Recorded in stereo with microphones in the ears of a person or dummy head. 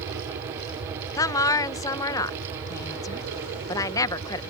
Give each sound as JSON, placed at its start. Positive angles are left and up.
{"t": 0.0, "sound": "an aircraft", "side_deg": -70}
{"t": 1.2, "sound": "a woman speaking", "side_deg": 20}